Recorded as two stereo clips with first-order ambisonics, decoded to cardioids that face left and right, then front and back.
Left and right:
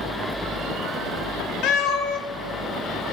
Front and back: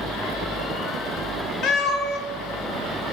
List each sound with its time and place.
1.6 s a cat meowing: 50° left, 0.6 m